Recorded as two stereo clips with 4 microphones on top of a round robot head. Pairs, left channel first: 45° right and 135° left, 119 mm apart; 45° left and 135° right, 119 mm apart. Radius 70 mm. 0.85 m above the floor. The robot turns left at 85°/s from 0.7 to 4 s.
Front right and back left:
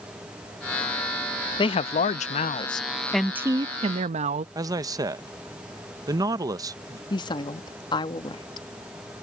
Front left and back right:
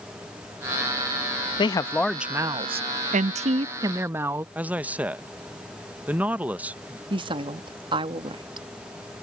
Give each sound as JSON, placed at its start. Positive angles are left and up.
{"t": 1.6, "sound": "a woman speaking", "azimuth_deg": 0}
{"t": 4.5, "sound": "a man speaking", "azimuth_deg": 160}
{"t": 7.1, "sound": "a woman speaking", "azimuth_deg": -95}